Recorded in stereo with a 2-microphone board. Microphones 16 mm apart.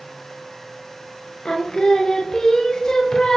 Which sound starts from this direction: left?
Singing, at 1.4 s.